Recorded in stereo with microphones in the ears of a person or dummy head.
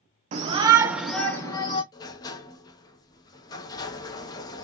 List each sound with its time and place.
0.3 s a shout: 40° right (ahead or behind), 0.6 m; by 1.8 s 25° left (ahead or behind), 0.8 m
1.9 s a sliding door: 15° left (ahead or behind), 0.5 m